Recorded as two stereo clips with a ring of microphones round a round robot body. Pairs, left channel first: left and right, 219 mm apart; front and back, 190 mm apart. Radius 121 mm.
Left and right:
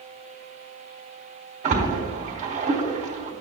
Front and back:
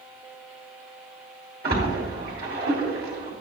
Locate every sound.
1.6 s a splash: 145° right, 2.5 m